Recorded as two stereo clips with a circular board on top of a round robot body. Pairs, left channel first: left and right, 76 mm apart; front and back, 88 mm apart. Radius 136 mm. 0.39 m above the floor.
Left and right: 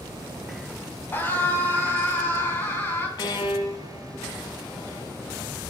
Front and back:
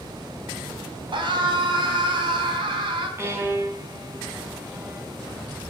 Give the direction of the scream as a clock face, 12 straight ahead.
7 o'clock.